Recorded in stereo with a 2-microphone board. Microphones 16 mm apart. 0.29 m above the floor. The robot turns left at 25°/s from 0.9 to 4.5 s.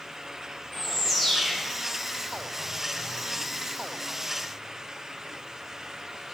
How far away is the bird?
About 1.8 m.